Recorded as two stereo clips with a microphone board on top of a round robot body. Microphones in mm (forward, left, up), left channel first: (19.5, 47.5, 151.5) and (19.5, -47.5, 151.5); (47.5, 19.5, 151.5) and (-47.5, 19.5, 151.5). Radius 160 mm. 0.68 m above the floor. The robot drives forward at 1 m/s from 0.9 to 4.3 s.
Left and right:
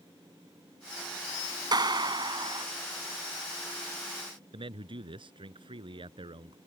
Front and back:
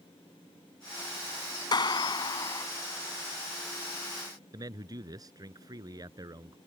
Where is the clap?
45° right; by 2.7 s 50° right.